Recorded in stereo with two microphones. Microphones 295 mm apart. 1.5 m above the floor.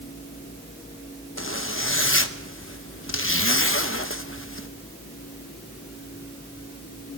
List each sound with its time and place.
1.4 s a zipper: 45° left (ahead or behind), 1.0 m